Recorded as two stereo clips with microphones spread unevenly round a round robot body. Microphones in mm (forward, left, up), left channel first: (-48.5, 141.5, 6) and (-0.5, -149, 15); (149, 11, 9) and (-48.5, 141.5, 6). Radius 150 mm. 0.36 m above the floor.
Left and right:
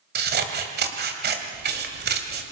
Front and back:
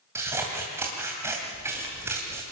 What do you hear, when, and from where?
0.1 s scissors: 135° right, 2.5 m